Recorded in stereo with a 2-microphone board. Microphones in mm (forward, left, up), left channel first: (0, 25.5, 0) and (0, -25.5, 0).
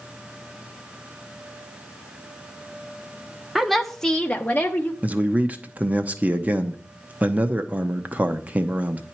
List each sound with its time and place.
3.5 s a woman speaking: 5° right (ahead or behind), 1.0 m; by 4.9 s 30° left (ahead or behind), 1.1 m
5.0 s a man speaking: 25° right (ahead or behind), 0.8 m